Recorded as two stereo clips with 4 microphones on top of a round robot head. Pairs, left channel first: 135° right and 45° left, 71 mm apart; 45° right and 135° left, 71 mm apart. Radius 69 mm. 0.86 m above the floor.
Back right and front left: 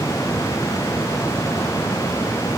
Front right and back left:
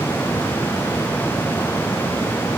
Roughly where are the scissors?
No scissors in this recording.